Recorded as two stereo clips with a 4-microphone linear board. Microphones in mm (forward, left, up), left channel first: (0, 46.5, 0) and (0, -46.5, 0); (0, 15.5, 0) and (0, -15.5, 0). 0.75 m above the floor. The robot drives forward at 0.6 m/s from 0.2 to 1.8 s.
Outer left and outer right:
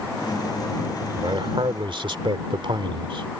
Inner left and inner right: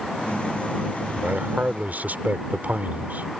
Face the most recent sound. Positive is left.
turn(degrees=-70)  # may be behind; listen again after turning